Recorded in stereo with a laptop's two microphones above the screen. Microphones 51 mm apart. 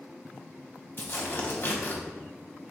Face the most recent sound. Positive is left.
turn(degrees=45)  # may be behind; listen again after turning